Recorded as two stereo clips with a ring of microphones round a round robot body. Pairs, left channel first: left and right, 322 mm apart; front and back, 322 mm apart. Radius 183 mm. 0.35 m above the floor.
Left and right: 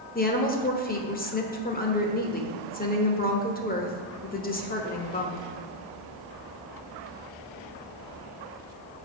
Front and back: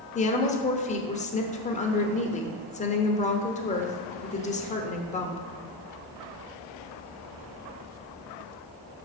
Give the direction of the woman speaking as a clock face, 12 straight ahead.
10 o'clock.